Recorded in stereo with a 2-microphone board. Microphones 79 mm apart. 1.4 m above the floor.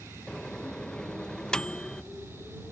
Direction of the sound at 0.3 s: 10° left (ahead or behind).